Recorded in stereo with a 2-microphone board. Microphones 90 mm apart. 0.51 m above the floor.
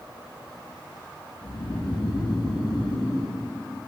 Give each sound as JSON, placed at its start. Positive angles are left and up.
{"t": 1.4, "sound": "snoring", "side_deg": 70, "distance_m": 2.5}